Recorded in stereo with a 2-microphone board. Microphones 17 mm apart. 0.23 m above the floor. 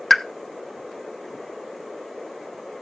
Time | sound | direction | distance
0.1 | a pop | 10° left (ahead or behind) | 0.6 m